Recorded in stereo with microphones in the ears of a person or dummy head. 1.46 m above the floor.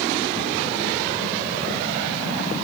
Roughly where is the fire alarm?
I don't hear a fire alarm.